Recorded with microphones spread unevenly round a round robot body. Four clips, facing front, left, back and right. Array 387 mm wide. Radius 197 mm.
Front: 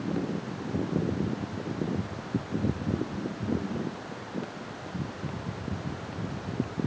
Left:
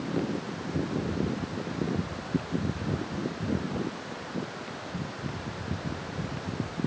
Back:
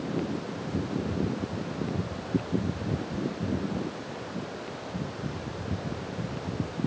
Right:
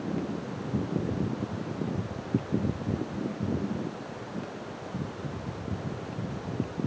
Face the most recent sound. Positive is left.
No sound to turn to.